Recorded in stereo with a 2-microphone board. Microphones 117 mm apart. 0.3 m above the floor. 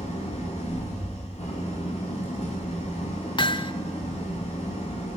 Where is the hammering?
45° left (ahead or behind), 0.8 m.